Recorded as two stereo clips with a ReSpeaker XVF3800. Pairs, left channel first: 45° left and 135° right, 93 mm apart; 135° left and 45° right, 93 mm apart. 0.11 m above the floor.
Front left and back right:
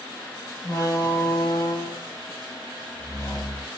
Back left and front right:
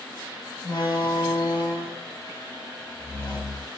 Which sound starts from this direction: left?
A door slam, at 0.6 s.